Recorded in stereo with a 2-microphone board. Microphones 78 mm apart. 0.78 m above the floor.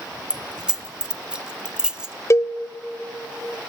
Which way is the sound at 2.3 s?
40° left (ahead or behind).